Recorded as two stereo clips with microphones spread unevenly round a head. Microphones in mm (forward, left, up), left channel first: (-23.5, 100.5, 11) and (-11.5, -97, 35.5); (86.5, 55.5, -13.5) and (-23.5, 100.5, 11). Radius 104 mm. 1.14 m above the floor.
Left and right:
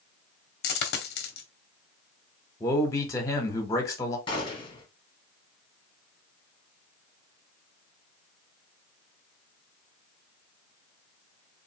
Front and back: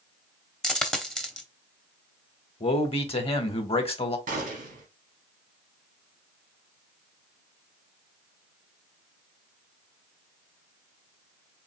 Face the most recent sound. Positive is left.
turn(degrees=160)